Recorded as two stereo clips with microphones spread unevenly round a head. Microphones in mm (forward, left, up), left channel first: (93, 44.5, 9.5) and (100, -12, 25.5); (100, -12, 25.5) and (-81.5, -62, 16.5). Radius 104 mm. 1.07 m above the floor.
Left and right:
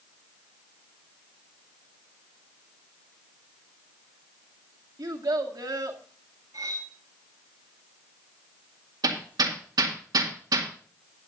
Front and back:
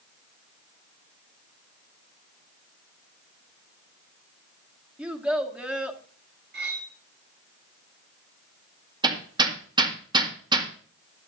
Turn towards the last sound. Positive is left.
turn(degrees=-100)